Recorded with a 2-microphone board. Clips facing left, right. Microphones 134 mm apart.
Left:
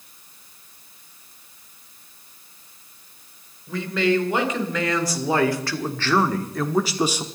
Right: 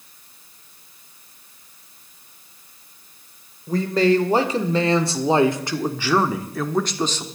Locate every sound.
3.7 s a man speaking: 40° right (ahead or behind), 2 m; by 7.2 s 15° left (ahead or behind), 1.2 m